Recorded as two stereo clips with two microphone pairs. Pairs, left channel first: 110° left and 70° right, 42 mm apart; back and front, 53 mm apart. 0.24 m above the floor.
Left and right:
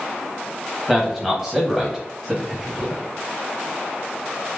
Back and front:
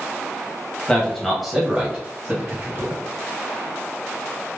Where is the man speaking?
145° right, 1.6 m; by 3.0 s 10° left, 2 m.